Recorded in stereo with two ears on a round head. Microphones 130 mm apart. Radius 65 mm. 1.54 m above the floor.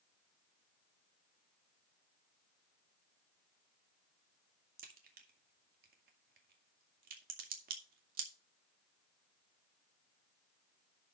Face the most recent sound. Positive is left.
turn(degrees=-65)  # may be behind; listen again after turning